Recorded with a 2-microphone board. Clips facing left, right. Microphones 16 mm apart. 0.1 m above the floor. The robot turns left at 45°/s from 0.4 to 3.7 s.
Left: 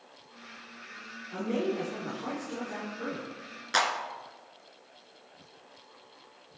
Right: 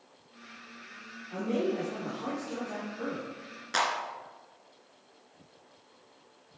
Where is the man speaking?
5° right, 3.5 m; by 3.3 s 95° right, 3.5 m.